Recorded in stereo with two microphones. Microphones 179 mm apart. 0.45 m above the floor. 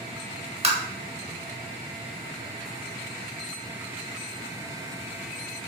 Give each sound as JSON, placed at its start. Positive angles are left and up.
{"t": 0.6, "sound": "tapping", "side_deg": -35, "distance_m": 0.7}